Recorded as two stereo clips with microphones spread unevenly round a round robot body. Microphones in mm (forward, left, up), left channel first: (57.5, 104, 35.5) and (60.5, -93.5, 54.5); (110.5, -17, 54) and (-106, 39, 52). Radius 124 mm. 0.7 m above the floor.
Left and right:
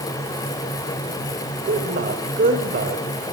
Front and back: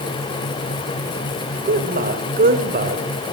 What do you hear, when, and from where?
1.6 s a man speaking: 145° right, 2.5 m